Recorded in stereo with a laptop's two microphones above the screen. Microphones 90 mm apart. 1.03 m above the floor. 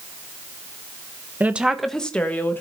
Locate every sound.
1.4 s a woman speaking: 20° right (ahead or behind), 1.0 m; by 2.6 s 25° left (ahead or behind), 1.6 m